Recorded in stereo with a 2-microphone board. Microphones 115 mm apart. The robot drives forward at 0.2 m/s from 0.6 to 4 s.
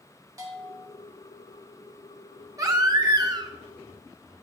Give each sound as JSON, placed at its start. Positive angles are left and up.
{"t": 0.4, "sound": "a bell", "side_deg": -30, "distance_m": 1.7}
{"t": 2.6, "sound": "a baby crying", "side_deg": -30, "distance_m": 0.7}